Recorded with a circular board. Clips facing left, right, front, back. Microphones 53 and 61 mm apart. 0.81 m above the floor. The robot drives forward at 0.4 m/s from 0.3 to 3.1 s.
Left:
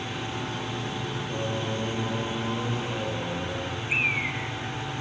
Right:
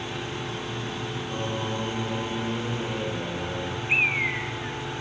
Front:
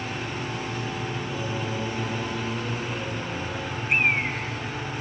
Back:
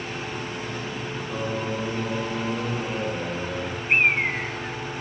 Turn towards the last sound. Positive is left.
turn(degrees=-135)